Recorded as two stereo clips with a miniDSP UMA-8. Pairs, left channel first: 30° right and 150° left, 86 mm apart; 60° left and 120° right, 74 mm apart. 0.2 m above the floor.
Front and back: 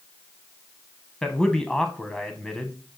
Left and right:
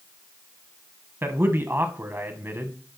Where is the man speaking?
105° right, 1.1 m.